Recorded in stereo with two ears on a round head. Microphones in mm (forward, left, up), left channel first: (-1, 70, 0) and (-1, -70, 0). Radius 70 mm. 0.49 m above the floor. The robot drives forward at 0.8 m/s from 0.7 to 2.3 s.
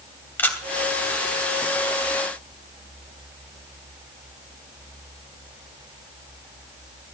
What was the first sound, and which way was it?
A camera shutter, 15° left (ahead or behind).